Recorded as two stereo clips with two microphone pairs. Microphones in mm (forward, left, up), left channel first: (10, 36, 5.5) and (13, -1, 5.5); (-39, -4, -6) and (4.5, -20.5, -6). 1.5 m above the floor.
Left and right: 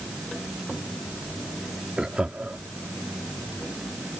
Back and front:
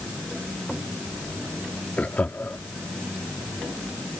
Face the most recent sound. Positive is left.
turn(degrees=-145)